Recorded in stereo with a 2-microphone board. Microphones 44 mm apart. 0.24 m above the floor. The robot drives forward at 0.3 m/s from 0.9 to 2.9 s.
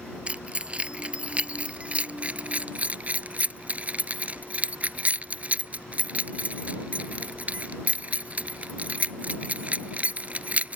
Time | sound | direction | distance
0.3 | keys jangling | 25° right (ahead or behind) | ?